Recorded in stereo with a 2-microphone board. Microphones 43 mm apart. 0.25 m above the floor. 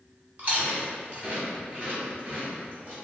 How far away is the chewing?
About 0.9 m.